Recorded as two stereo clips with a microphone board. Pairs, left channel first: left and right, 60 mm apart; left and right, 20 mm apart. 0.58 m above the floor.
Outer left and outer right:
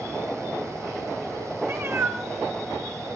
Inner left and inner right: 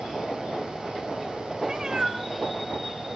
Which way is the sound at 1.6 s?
55° right (ahead or behind).